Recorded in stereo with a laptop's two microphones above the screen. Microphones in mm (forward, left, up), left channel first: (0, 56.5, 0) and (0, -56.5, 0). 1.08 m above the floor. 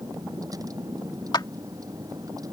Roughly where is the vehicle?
Right.